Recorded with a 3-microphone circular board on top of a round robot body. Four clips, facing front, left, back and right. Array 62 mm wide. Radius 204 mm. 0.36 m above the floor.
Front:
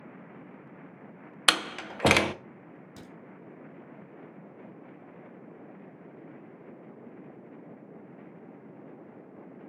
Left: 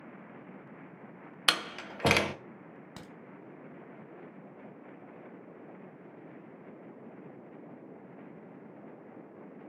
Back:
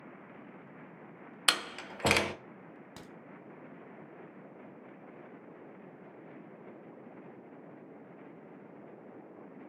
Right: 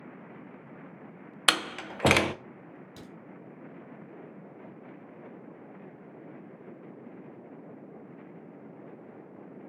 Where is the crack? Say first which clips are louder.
Even, front 3 dB; 120° left, 0.9 m.